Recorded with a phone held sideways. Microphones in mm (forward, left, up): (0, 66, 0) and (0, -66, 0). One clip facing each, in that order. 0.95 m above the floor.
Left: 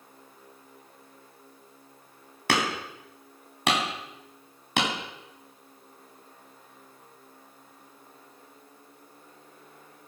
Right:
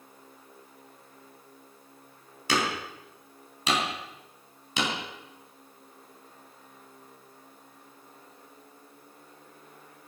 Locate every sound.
2.5 s hammering: 65° left (ahead or behind), 3.5 m